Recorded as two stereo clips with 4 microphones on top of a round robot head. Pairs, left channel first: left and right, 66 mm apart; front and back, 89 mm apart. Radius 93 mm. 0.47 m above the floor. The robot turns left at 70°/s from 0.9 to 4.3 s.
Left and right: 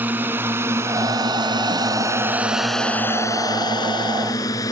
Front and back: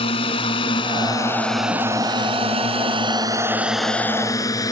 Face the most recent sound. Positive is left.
turn(degrees=45)